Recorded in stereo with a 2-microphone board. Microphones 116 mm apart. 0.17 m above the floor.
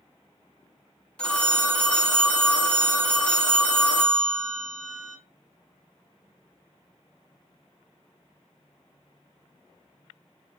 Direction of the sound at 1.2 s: 10° left (ahead or behind).